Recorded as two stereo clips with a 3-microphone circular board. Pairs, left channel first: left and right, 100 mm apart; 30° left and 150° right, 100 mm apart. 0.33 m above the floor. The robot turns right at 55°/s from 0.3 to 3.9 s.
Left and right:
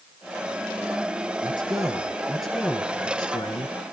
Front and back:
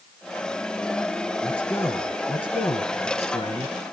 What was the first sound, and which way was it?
A man speaking, 55° right.